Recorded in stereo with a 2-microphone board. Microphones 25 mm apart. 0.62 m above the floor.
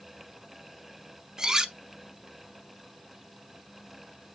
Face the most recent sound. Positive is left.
turn(degrees=-25)  # may be behind; listen again after turning